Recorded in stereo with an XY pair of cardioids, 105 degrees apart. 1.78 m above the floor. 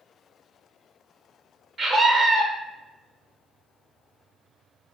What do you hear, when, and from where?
1.8 s a scream: 55° right, 1.2 m